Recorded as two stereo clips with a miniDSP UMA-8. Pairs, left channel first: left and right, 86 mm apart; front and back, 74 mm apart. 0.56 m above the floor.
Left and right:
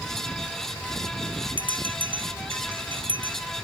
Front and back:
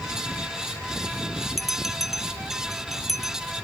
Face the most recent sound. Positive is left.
turn(degrees=-90)